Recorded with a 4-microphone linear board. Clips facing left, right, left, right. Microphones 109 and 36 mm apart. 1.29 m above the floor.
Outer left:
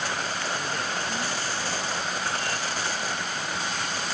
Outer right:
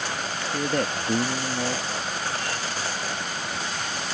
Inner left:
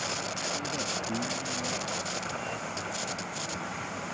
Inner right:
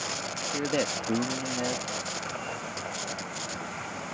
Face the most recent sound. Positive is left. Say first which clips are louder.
# outer right 5 dB, inner right 5 dB
turn(degrees=-80)